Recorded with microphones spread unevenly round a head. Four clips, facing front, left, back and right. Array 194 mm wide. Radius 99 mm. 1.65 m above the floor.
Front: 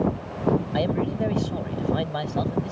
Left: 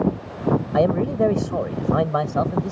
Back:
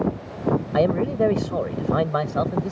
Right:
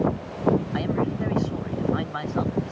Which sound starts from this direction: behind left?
A man speaking, at 0.7 s.